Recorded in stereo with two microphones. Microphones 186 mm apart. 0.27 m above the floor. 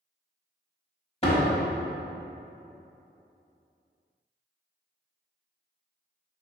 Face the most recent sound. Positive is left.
turn(degrees=35)  # may be behind; listen again after turning